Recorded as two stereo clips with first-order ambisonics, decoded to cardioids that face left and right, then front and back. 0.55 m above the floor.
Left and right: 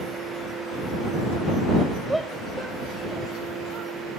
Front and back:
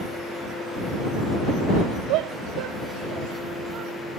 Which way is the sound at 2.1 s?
175° right.